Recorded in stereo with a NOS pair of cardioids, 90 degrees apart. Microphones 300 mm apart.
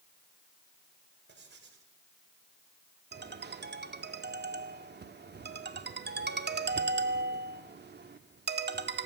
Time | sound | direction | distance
1.3 | writing | 35° right | 5.5 m
3.1 | a ringtone | 35° right | 2.0 m